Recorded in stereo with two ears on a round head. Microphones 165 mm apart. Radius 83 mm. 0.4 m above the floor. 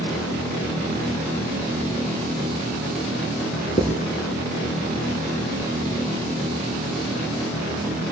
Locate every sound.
3.8 s writing: 35° left (ahead or behind), 3 m